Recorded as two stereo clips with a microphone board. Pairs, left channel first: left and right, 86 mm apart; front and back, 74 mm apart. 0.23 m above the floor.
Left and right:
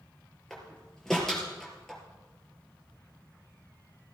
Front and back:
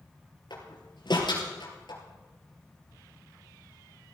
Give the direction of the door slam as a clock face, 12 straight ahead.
12 o'clock.